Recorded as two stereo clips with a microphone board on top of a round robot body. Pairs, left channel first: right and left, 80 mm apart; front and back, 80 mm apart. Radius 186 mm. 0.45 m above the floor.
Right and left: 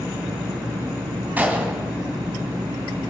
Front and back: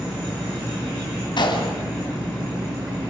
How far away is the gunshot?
About 2.5 m.